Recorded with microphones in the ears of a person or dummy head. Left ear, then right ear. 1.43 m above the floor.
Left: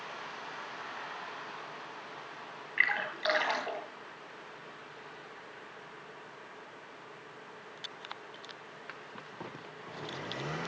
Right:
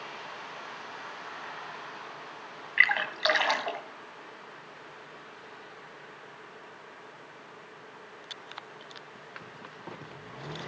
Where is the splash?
25° right (ahead or behind), 3.5 m.